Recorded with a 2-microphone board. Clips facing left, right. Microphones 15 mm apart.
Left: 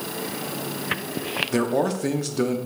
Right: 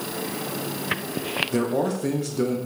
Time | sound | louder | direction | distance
1.5 | a man speaking | left 3 dB | 20° left (ahead or behind) | 0.6 m